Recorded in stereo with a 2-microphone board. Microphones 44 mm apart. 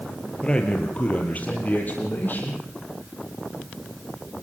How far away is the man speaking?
About 4 m.